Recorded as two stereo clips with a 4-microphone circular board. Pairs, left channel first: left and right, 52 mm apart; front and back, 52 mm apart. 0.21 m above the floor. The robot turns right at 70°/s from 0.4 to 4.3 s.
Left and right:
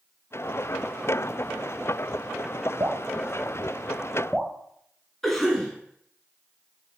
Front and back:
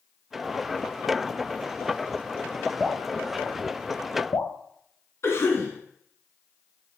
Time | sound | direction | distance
2.8 | dripping | 100° right | 1.5 m
5.2 | a cough | 5° left | 2 m